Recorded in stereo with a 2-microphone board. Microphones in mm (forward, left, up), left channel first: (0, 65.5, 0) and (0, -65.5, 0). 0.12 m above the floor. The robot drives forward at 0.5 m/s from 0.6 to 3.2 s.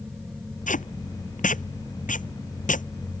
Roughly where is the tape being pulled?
Left.